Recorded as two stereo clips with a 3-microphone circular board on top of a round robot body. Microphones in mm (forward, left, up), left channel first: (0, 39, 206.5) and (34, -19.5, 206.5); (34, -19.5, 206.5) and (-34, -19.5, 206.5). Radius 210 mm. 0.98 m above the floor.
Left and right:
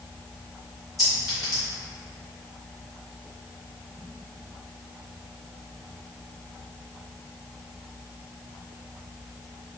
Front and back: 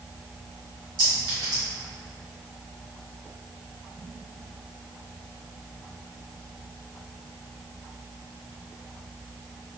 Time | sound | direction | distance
1.0 | a clink | 155° left | 1.3 m